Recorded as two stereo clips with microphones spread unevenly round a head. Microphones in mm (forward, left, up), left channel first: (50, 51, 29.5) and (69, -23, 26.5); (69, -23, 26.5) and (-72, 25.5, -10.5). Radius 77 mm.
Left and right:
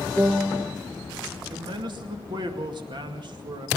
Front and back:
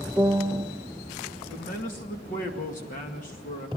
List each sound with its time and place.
0.2 s a piano: 150° right, 0.6 m
1.5 s a man speaking: 60° right, 2 m